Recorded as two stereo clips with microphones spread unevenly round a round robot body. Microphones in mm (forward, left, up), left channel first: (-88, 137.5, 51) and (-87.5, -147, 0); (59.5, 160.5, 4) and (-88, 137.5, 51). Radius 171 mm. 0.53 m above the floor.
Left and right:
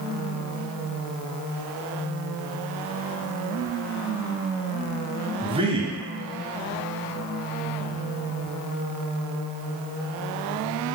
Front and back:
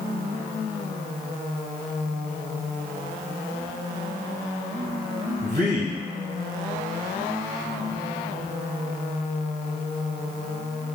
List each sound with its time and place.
5.4 s a man speaking: 140° right, 0.8 m